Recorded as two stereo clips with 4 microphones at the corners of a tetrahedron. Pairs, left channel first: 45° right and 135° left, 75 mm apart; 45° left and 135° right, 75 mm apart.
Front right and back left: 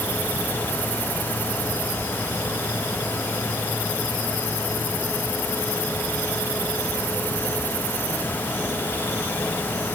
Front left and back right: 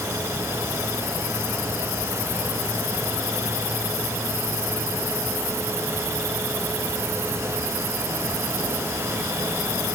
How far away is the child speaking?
I don't hear a child speaking.